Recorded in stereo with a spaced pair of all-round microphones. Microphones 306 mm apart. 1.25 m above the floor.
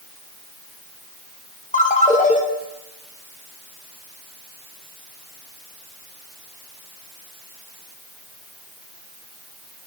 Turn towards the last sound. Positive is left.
turn(degrees=25)  # may be behind; listen again after turning